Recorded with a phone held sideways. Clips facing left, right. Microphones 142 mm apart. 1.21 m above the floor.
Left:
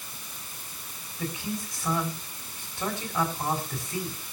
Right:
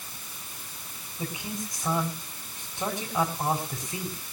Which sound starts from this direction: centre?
A man speaking, at 1.2 s.